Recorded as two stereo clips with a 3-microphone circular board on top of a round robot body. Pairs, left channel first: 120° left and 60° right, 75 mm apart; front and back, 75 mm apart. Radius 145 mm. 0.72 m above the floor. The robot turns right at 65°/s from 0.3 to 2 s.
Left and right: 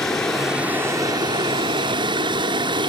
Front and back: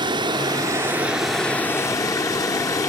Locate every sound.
0.0 s running water: 155° right, 1.5 m; by 2.9 s 45° right, 1.5 m